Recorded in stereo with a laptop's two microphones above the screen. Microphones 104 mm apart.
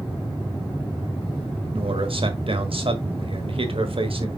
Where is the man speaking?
60° right (ahead or behind), 1.5 m.